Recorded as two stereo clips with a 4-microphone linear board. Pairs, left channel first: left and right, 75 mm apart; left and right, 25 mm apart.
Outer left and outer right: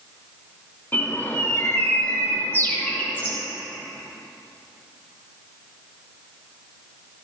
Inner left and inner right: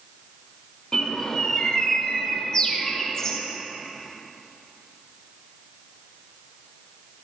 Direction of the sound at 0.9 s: 25° left (ahead or behind).